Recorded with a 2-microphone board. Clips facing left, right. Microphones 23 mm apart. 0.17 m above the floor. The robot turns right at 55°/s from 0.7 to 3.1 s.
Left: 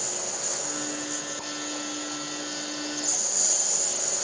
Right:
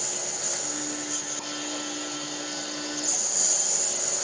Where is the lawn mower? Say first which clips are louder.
Even; 165° right; by 4.2 s 30° right.